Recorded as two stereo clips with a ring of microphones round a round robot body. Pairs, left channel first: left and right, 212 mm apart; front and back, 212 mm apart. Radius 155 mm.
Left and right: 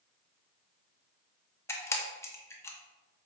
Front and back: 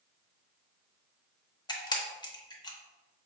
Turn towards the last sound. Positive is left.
turn(degrees=35)